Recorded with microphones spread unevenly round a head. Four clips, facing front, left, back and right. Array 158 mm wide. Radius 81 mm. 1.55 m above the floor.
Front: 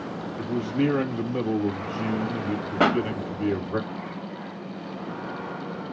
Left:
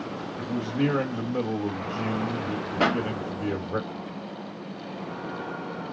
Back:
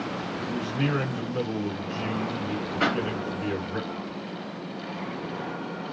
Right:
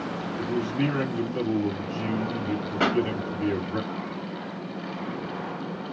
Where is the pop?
15° left, 1.9 m.